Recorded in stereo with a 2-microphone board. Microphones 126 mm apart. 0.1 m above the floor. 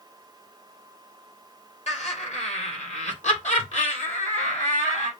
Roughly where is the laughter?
Left.